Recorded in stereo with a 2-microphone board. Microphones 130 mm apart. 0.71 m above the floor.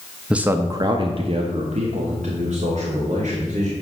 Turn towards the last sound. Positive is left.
turn(degrees=-75)  # may be behind; listen again after turning